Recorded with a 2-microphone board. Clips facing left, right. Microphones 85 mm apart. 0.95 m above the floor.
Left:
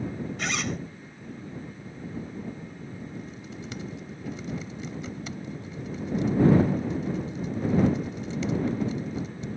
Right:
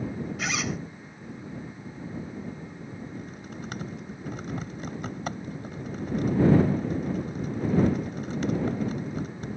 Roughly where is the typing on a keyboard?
Right.